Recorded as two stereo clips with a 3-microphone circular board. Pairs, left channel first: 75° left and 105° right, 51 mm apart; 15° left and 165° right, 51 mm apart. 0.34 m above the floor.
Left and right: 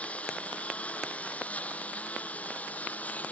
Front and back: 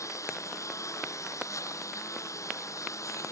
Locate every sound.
0.0 s a lawn mower: 10° left; by 3.3 s 15° left